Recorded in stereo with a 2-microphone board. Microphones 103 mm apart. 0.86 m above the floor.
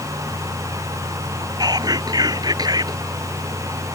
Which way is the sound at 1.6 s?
40° right (ahead or behind).